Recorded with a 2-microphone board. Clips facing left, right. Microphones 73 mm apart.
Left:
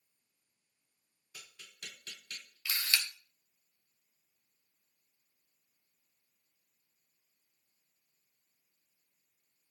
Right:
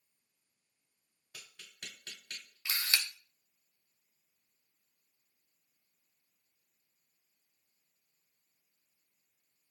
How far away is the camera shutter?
About 0.5 m.